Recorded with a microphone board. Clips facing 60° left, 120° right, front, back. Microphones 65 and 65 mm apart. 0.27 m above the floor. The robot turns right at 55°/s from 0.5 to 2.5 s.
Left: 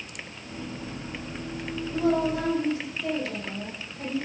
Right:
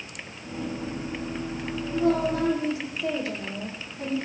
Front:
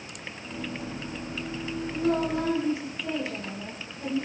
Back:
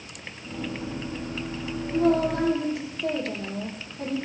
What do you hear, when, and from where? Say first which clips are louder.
1.9 s a woman speaking: right 1 dB, back 5 dB; 130° left, 8.5 m; by 4.2 s 160° left, 8.5 m